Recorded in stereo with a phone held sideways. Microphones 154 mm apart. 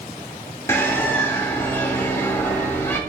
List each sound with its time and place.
0.7 s a bird: 15° left (ahead or behind), 1.3 m